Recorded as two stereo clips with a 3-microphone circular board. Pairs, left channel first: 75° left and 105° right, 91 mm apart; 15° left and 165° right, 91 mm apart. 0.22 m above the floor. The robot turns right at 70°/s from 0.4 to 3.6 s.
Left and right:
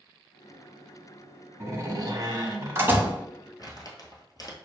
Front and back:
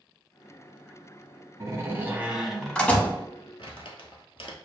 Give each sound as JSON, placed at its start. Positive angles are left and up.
{"t": 1.6, "sound": "a door slam", "azimuth_deg": -140, "distance_m": 0.8}
{"t": 3.6, "sound": "crumpling", "azimuth_deg": 30, "distance_m": 1.0}